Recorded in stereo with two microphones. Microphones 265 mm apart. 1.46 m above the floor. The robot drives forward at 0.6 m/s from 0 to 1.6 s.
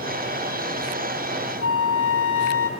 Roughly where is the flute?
Left.